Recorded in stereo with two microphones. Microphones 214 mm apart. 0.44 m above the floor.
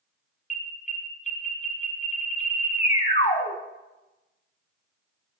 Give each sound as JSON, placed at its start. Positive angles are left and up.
{"t": 0.5, "sound": "an alarm", "side_deg": 35, "distance_m": 2.5}